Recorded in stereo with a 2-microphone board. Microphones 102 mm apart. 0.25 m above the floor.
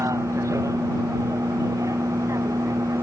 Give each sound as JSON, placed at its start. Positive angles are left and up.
{"t": 0.0, "sound": "a vehicle", "side_deg": -30}